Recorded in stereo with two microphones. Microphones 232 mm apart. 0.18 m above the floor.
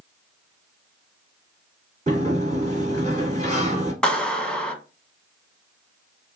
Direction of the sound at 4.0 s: 5° left (ahead or behind).